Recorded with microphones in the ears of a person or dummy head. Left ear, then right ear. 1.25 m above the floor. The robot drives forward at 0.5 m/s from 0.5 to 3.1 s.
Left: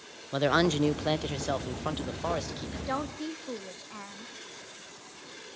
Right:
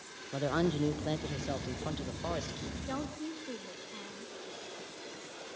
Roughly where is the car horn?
No car horn in this recording.